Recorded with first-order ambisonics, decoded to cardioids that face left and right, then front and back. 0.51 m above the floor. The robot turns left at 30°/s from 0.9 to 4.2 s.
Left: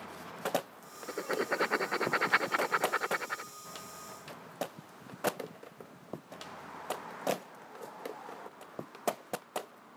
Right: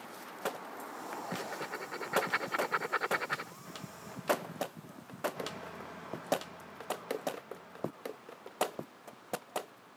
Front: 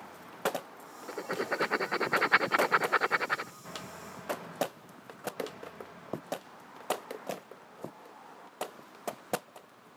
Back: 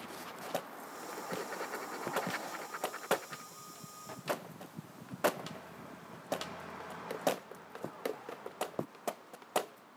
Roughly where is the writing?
Ahead left.